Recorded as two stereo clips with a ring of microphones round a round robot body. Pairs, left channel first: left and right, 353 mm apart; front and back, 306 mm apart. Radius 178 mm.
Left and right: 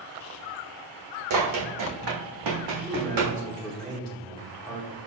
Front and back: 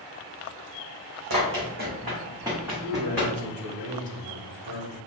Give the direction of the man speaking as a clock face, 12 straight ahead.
6 o'clock.